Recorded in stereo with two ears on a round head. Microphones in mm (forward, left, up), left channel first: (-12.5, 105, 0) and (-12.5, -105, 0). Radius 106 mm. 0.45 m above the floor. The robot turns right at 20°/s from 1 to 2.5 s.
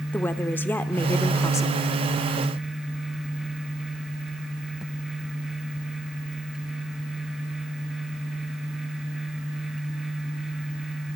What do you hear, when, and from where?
0.1 s a woman speaking: 10° left (ahead or behind), 0.8 m; by 1.9 s 15° left (ahead or behind), 0.8 m